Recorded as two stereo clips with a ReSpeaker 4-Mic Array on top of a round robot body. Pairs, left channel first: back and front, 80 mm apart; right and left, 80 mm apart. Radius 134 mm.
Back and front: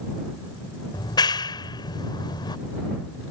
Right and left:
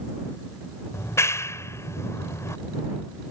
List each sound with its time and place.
0.9 s a clap: 145° right